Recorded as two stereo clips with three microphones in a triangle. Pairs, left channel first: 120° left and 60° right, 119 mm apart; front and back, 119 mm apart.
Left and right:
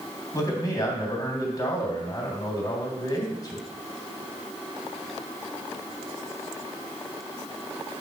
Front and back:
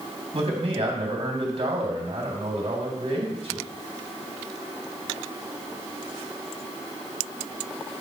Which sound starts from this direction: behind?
A man speaking, at 0.3 s.